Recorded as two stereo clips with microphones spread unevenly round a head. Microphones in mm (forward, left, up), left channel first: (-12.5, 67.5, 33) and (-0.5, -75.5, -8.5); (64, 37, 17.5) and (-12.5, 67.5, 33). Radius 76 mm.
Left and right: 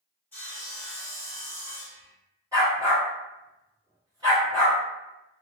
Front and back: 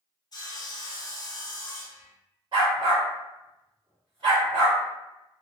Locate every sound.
0.3 s sawing: 15° left, 0.8 m
2.5 s a dog barking: 160° right, 1.6 m